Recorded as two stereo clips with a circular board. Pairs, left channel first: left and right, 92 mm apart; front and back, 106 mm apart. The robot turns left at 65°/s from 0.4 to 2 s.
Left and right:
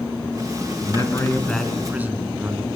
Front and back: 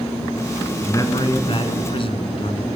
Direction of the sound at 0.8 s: 60° left.